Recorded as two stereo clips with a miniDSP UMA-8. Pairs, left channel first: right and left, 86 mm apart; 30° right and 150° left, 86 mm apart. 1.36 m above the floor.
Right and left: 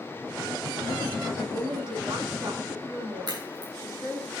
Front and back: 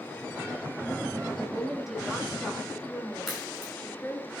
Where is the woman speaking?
70° left, 3 m; by 4.3 s 35° left, 3.5 m.